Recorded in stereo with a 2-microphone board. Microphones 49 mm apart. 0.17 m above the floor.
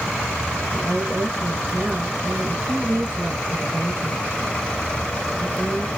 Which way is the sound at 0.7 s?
45° right (ahead or behind).